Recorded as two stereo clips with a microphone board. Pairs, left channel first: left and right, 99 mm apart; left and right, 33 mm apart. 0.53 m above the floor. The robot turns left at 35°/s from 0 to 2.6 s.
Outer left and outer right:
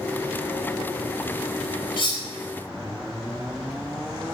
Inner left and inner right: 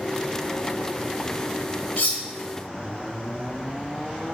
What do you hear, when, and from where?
2.0 s cutlery clinking: 55° left (ahead or behind), 1.6 m; by 2.2 s 45° left (ahead or behind), 1.6 m